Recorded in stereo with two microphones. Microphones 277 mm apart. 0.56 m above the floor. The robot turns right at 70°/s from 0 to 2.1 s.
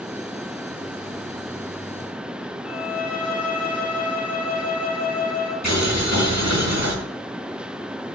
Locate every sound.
2.6 s a violin: 80° right, 6 m
5.6 s boiling: 80° right, 5 m